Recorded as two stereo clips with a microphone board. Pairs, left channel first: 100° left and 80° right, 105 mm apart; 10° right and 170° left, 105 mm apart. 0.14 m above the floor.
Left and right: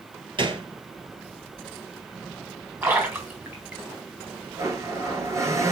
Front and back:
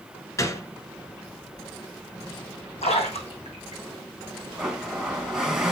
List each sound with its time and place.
0.4 s a gunshot: 65° right, 1.6 m
2.8 s a splash: 10° right, 2.5 m
4.6 s a blender: 110° right, 1.9 m